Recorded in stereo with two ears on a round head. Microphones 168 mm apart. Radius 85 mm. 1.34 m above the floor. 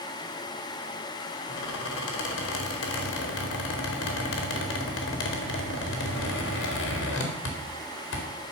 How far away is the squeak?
About 2.0 m.